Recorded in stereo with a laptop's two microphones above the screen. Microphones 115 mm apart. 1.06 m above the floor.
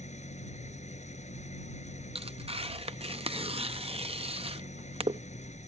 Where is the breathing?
No breathing in this recording.